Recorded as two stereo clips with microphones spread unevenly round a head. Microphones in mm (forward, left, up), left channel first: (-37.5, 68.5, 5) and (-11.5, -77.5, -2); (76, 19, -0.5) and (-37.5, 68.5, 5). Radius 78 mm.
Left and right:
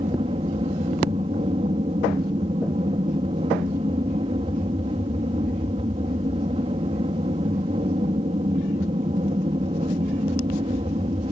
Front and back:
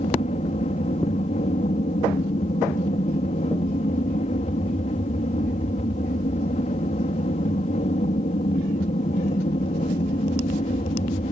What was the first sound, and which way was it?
An aircraft, 30° right.